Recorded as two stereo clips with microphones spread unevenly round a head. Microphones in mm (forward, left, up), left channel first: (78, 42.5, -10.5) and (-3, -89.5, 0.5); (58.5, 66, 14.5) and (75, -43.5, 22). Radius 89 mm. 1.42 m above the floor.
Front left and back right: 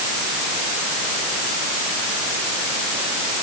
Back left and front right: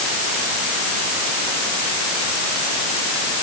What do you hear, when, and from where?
Only background noise.